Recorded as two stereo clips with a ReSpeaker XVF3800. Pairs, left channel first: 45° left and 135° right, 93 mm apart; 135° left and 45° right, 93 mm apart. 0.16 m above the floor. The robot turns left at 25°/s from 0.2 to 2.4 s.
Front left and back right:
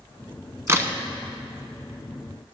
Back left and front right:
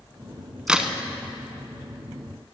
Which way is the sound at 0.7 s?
115° right.